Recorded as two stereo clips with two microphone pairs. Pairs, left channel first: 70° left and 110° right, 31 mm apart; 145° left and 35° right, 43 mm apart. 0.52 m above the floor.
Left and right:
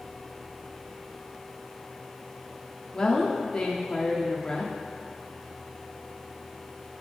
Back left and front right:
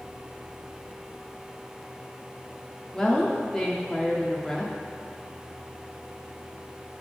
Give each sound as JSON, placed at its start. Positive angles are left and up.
{"t": 2.9, "sound": "a woman speaking", "azimuth_deg": 90, "distance_m": 0.6}